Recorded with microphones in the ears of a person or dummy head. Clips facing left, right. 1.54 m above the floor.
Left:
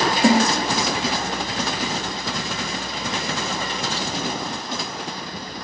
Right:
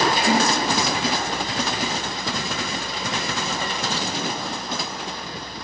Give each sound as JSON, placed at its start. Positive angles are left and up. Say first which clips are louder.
{"t": 0.2, "sound": "a snare drum", "louder": "left 7 dB", "side_deg": 45, "distance_m": 1.9}